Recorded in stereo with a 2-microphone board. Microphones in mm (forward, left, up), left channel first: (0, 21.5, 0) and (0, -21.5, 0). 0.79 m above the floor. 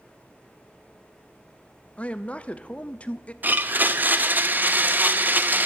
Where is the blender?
40° right (ahead or behind), 0.7 m.